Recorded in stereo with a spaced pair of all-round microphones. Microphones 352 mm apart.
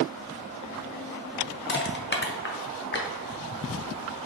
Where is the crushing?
30° left (ahead or behind), 0.6 m.